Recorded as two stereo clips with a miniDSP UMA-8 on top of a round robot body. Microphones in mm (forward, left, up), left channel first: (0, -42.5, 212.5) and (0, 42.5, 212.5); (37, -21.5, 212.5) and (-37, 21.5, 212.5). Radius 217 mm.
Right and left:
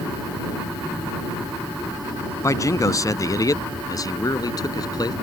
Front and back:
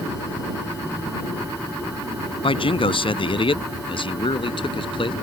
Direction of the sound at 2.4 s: 40° right.